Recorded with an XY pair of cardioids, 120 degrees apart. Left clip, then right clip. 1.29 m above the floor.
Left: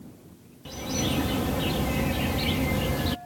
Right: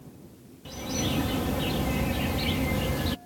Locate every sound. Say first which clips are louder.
0.7 s a bird: left 1 dB; 10° left